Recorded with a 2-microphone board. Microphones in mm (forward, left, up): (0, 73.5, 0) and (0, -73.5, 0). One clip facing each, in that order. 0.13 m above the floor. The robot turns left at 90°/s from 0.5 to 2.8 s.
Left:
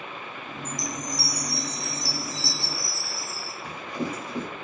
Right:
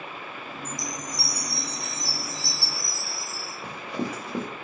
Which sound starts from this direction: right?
Running footsteps, at 3.6 s.